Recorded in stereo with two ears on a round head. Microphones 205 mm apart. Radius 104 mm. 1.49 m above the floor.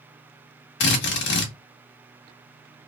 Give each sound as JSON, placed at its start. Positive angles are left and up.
{"t": 0.8, "sound": "a drill", "side_deg": 50, "distance_m": 1.1}